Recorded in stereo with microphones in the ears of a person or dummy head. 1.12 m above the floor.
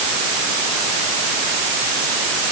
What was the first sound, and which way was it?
Only background noise.